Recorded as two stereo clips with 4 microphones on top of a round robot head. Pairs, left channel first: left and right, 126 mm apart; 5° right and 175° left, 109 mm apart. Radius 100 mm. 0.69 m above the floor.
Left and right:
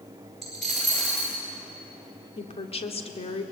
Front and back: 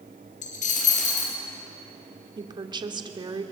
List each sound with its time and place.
0.4 s a dropped coin: straight ahead, 3.5 m
2.4 s a woman speaking: 130° left, 2 m